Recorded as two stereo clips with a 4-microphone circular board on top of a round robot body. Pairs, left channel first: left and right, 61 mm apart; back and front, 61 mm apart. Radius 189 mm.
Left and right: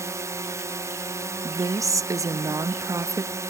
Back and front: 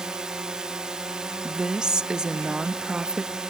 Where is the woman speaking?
75° right.